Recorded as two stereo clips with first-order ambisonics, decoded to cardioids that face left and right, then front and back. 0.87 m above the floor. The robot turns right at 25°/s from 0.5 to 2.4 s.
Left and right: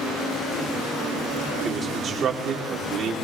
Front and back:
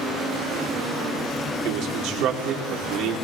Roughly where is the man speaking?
Behind.